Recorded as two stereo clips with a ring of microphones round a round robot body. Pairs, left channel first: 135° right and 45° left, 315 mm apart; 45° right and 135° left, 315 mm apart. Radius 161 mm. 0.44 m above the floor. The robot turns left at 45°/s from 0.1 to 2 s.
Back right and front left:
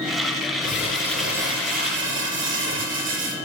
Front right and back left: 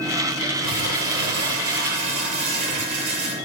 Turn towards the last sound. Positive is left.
turn(degrees=100)